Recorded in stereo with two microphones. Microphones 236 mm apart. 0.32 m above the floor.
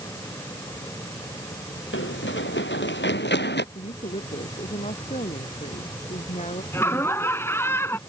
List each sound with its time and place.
1.9 s running footsteps: 55° left (ahead or behind); by 3.6 s 45° left (ahead or behind)
3.8 s a woman speaking: 30° left (ahead or behind)
6.7 s laughter: 10° left (ahead or behind)